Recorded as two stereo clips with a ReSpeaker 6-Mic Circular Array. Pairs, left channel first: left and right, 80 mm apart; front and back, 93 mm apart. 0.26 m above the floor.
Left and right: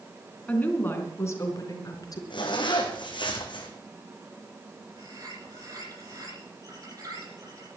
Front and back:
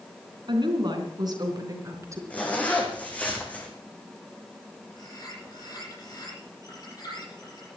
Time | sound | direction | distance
0.5 | a woman speaking | 160° left | 3 m
2.3 | a zipper | 75° left | 3 m
5.0 | a bird | 45° right | 9 m